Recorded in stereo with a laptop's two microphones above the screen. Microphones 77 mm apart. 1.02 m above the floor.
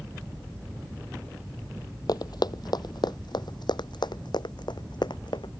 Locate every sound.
2.1 s running footsteps: 60° left (ahead or behind); by 5.5 s 75° left (ahead or behind)